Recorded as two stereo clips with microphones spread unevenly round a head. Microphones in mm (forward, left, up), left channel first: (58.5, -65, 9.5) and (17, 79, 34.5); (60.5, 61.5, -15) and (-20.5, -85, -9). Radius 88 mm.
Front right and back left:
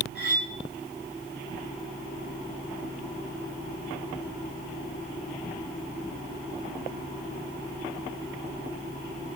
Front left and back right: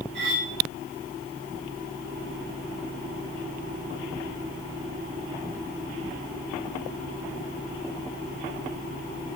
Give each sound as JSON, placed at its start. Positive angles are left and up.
{"t": 0.1, "sound": "cutlery clinking", "azimuth_deg": -100, "distance_m": 4.5}